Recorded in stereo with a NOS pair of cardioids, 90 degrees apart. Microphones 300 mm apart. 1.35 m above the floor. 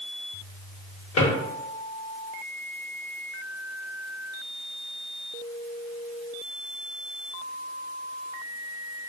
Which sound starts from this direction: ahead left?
A drawer, at 1.2 s.